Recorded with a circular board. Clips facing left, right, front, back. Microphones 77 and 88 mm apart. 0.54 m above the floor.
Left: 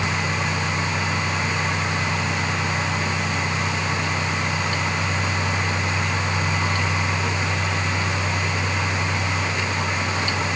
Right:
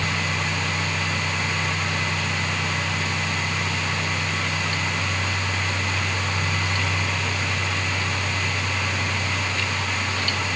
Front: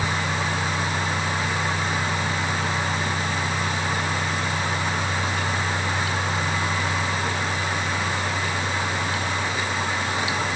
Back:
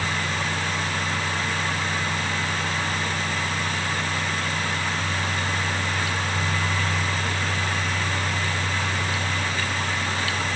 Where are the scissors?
I don't hear scissors.